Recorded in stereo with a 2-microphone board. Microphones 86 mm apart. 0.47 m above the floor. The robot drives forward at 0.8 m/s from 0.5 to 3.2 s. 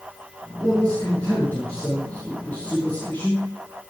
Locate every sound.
0.6 s a man speaking: 15° left (ahead or behind), 6.5 m; by 3.5 s 20° left (ahead or behind), 4.5 m